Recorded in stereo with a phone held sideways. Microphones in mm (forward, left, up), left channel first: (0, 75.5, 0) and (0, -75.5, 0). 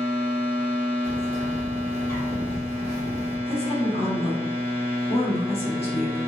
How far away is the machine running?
About 1.5 m.